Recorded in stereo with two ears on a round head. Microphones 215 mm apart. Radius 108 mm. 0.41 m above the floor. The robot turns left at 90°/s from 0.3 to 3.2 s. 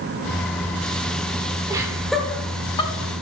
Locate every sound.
1.7 s laughter: 15° right (ahead or behind), 1.1 m; by 3.2 s 25° left (ahead or behind), 1.1 m